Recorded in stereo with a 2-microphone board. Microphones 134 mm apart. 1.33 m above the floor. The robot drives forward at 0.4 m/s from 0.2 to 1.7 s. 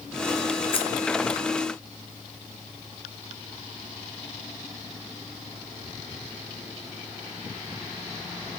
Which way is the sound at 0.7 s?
40° left (ahead or behind).